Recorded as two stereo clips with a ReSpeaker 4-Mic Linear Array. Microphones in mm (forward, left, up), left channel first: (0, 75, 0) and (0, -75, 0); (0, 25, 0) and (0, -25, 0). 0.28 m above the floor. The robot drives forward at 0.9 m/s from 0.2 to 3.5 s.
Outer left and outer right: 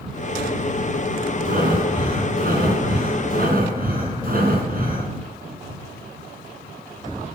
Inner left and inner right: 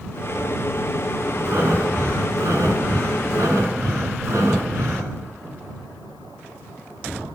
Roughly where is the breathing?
Right.